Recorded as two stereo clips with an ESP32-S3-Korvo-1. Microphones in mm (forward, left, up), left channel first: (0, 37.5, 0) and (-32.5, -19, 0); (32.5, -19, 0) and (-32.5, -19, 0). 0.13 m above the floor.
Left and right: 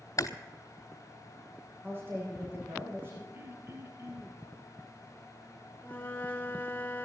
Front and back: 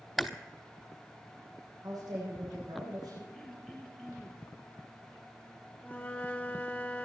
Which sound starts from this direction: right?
Throat clearing, at 3.3 s.